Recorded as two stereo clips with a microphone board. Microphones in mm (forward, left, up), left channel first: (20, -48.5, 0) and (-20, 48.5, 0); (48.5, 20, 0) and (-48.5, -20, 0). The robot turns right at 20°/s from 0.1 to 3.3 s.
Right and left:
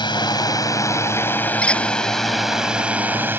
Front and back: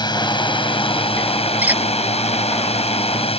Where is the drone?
20° right; by 3.4 s 40° left.